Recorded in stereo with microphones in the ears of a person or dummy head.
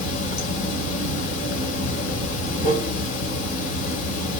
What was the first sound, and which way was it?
Running water, 45° left (ahead or behind).